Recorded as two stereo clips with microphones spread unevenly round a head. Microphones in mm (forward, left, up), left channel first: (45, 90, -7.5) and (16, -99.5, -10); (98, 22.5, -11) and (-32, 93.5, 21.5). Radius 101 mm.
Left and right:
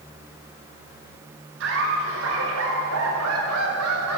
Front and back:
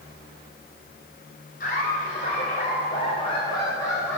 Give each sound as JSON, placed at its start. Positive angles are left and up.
{"t": 1.6, "sound": "laughter", "azimuth_deg": -85, "distance_m": 6.0}